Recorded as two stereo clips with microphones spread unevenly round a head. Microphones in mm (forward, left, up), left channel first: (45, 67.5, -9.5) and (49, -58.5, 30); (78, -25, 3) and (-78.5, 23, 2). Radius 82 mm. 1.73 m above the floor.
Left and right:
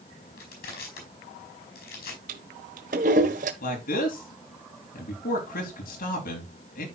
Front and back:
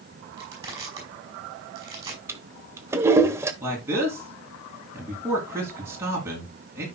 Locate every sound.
0.4 s crushing: 90° left, 5 m
2.3 s a toilet flushing: 120° right, 0.8 m
3.6 s a man speaking: 90° left, 2.5 m